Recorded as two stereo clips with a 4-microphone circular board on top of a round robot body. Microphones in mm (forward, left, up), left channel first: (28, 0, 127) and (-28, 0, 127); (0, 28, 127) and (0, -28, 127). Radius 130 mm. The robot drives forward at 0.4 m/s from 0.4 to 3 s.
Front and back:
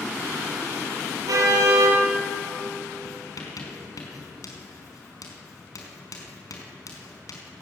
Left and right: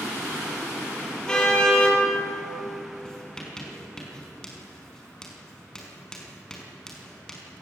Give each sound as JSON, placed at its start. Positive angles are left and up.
{"t": 1.3, "sound": "a car horn", "azimuth_deg": 170, "distance_m": 6.0}
{"t": 3.0, "sound": "writing", "azimuth_deg": 10, "distance_m": 5.0}